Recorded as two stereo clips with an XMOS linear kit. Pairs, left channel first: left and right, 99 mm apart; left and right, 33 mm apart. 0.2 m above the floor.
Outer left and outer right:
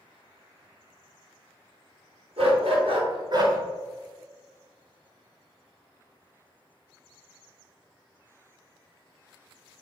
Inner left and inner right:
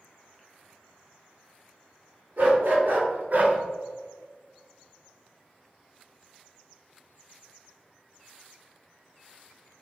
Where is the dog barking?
75° right (ahead or behind), 1.6 m; by 3.6 s 35° right (ahead or behind), 1.0 m.